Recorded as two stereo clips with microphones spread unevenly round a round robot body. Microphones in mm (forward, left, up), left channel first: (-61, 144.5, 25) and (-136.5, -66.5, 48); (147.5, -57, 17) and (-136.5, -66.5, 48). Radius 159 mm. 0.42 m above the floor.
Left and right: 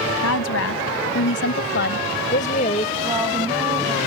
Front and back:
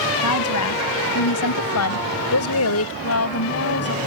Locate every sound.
0.2 s a woman speaking: 40° left; by 2.9 s 5° left
3.0 s a woman speaking: 30° right